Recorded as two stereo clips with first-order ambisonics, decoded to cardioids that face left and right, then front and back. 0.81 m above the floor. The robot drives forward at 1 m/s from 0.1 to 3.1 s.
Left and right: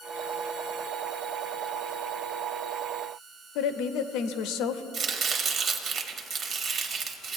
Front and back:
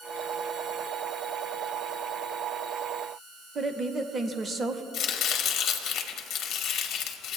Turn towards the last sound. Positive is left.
turn(degrees=-45)